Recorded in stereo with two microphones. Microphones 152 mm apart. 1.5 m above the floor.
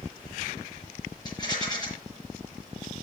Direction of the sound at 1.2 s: 25° left (ahead or behind).